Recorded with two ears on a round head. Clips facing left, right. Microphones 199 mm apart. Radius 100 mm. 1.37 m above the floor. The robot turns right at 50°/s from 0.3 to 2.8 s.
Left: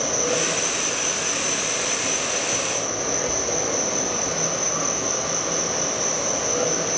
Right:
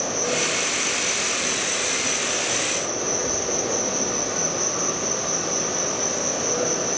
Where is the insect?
90° left, 1.2 m; by 7.0 s 145° right, 1.2 m.